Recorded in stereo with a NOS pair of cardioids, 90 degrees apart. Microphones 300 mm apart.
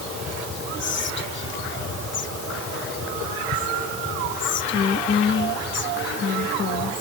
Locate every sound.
0.8 s whispering: 40° left, 1.1 m